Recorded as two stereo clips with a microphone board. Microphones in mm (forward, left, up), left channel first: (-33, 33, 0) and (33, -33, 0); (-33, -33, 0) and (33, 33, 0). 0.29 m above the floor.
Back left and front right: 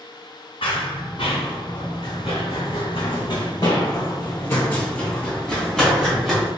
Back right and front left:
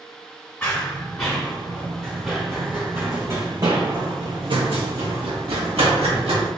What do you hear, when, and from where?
0.6 s running footsteps: 150° left, 1.9 m; by 6.5 s 40° left, 1.9 m